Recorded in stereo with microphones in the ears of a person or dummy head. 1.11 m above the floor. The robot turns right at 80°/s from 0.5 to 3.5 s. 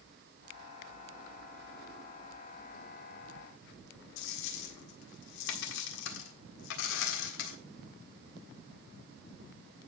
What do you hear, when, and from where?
4.2 s a dropped coin: 75° left (ahead or behind), 1.6 m